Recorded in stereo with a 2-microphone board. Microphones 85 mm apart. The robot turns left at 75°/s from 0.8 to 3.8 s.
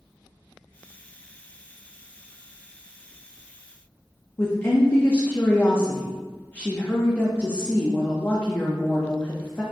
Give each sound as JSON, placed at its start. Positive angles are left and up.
{"t": 4.4, "sound": "a woman speaking", "side_deg": 25, "distance_m": 0.6}